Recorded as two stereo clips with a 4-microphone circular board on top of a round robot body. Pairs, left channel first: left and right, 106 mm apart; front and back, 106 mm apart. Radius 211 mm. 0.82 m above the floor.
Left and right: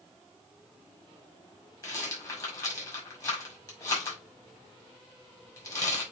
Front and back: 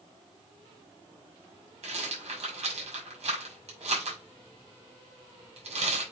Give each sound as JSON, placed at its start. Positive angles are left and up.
{"t": 1.8, "sound": "a rattle", "azimuth_deg": 150, "distance_m": 4.5}